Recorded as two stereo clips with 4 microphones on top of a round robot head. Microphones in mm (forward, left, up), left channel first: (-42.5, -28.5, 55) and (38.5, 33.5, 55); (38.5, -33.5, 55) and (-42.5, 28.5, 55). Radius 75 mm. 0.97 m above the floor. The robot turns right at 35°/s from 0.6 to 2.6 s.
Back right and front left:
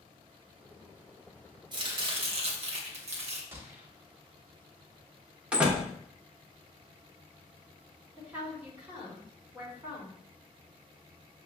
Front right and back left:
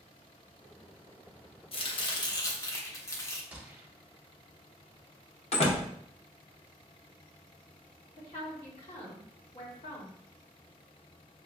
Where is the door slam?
40° right, 0.8 m.